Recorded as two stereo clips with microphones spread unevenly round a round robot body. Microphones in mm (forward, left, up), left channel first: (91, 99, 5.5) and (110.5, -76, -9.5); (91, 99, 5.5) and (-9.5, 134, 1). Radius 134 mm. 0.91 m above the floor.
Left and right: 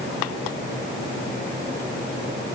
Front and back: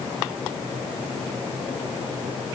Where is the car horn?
I don't hear a car horn.